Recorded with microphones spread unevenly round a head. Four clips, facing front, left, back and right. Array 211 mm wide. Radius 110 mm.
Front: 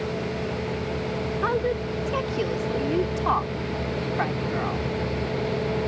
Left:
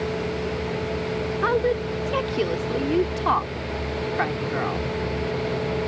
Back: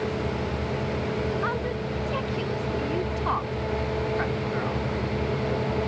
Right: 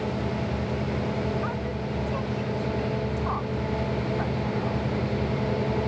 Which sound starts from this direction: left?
A woman speaking, at 1.4 s.